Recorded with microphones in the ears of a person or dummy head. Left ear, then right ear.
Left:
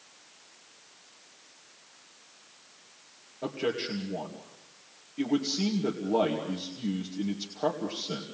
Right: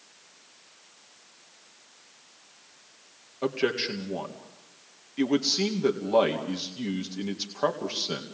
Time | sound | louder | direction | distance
3.4 | a man speaking | right 4 dB | 50° right (ahead or behind) | 2 m